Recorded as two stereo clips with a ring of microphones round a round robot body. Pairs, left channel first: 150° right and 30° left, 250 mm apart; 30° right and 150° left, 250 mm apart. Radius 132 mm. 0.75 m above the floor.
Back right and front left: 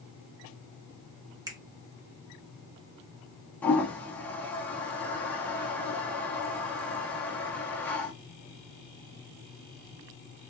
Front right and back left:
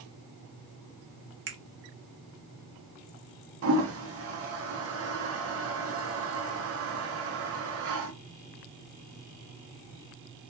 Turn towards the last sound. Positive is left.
turn(degrees=125)